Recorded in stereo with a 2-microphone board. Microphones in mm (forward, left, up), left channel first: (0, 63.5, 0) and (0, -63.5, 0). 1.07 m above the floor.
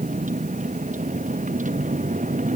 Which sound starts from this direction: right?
A vehicle, at 0.0 s.